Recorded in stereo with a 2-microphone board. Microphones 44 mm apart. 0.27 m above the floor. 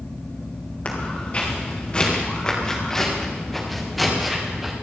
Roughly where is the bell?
No bell in this recording.